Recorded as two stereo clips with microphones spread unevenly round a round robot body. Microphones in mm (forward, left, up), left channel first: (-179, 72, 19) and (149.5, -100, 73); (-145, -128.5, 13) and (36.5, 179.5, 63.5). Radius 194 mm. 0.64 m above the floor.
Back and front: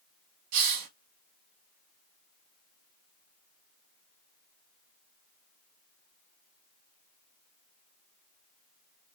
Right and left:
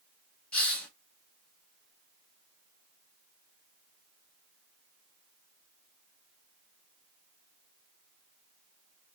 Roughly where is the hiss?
Ahead right.